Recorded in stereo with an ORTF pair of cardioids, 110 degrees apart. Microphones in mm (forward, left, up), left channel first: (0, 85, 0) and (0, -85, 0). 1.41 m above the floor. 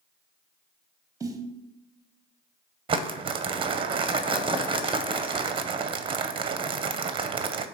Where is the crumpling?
30° right, 0.6 m.